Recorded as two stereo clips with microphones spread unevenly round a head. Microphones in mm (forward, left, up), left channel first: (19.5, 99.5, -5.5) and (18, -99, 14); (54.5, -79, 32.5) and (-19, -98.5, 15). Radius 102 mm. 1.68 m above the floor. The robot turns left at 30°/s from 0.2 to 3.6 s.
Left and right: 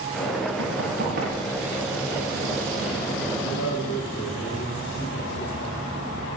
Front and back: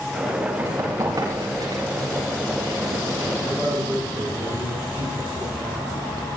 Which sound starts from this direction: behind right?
Running footsteps, at 0.6 s.